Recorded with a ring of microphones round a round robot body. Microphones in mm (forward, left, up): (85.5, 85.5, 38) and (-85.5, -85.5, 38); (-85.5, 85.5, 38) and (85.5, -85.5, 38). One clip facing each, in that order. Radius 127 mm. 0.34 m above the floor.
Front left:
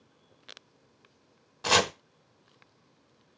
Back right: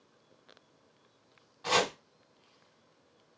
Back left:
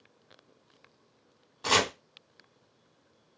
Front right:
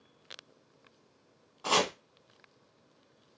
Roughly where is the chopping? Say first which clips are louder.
Front left 2 dB, back left 1 dB; left.